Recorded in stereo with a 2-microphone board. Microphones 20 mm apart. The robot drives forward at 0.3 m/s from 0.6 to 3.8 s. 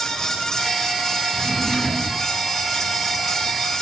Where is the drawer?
30° left (ahead or behind), 4.5 m; by 2.3 s 35° left (ahead or behind), 4 m.